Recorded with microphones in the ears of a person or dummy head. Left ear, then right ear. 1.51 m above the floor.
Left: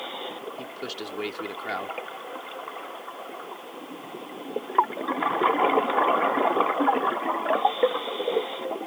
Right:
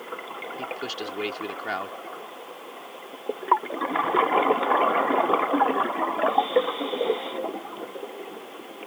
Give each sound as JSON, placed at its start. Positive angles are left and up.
{"t": 0.6, "sound": "a man speaking", "side_deg": -10}